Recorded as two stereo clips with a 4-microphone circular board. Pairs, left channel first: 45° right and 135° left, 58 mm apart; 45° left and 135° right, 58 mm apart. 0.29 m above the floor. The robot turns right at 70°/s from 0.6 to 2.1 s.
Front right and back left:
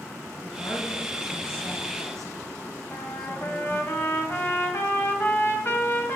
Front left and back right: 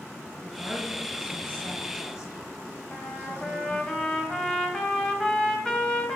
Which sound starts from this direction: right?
A woman speaking, at 0.4 s.